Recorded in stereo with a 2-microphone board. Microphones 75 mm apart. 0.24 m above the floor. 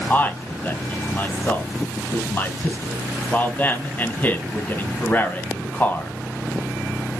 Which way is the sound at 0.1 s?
25° left (ahead or behind).